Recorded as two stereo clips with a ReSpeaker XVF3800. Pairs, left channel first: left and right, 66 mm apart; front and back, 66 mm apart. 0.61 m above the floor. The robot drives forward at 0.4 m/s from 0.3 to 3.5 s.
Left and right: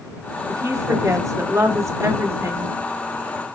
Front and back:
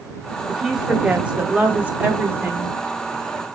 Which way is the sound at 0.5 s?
100° right.